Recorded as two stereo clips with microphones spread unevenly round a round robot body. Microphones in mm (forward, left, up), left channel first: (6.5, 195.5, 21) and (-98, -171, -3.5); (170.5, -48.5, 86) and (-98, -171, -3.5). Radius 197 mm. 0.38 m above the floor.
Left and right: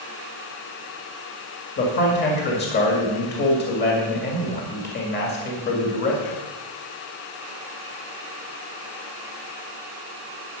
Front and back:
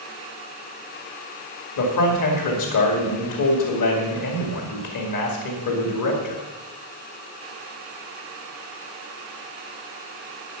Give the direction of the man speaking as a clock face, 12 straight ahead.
12 o'clock.